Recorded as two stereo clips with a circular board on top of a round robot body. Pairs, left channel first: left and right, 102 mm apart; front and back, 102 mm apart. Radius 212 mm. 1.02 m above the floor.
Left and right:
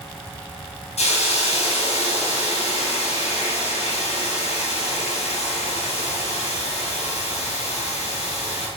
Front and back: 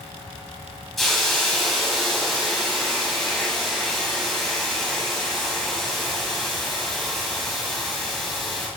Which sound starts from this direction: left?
A hiss, at 1.0 s.